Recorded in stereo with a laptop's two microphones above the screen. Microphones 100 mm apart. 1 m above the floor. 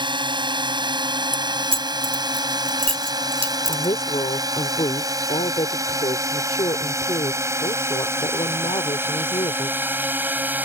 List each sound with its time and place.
0.0 s a drone: 50° right (ahead or behind); by 10.7 s 20° right (ahead or behind)
1.3 s keys jangling: 65° right (ahead or behind)
3.7 s a woman speaking: 80° left